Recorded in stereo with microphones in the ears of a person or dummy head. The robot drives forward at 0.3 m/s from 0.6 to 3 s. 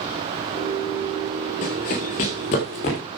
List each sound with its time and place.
1.6 s running footsteps: 30° left (ahead or behind), 2 m; by 3.0 s 40° left (ahead or behind), 3 m